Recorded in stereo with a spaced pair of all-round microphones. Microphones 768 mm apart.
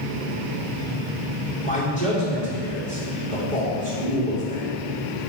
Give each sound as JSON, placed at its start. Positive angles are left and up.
{"t": 1.6, "sound": "a man speaking", "side_deg": -75, "distance_m": 2.5}